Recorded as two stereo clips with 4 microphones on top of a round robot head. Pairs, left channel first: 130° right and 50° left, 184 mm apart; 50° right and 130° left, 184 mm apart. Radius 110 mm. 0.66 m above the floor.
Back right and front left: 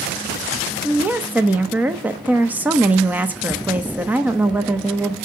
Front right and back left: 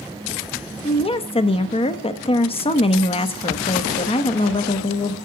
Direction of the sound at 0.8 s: 25° right.